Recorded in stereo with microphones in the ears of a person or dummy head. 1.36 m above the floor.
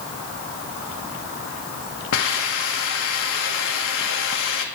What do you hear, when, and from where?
2.1 s a hiss: 70° left (ahead or behind), 1.5 m